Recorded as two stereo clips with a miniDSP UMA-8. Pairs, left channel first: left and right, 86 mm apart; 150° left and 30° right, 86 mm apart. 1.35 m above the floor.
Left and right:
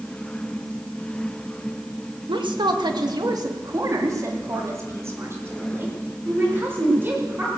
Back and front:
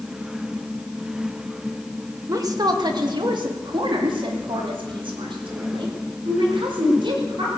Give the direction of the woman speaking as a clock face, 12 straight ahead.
3 o'clock.